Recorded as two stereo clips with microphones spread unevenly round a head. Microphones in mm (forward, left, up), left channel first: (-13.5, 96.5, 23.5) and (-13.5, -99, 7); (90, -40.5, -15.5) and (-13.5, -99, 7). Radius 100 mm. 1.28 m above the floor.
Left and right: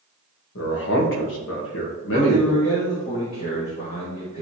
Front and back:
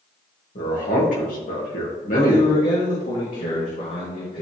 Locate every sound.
0.6 s a man speaking: 60° left, 1.8 m
2.1 s a man speaking: 25° left, 1.7 m